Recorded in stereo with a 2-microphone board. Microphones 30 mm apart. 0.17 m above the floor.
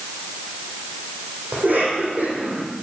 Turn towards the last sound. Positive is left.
turn(degrees=-75)  # may be behind; listen again after turning